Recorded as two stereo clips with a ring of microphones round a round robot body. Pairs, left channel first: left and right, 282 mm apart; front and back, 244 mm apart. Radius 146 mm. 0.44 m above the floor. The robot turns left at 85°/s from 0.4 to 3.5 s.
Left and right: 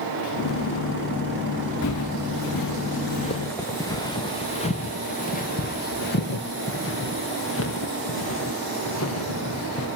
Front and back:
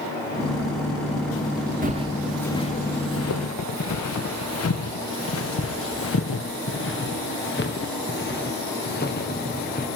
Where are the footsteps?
125° left, 2.0 m; by 9.9 s 55° left, 4.5 m.